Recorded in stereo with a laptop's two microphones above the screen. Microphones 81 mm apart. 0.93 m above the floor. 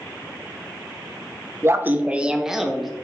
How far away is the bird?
I don't hear a bird.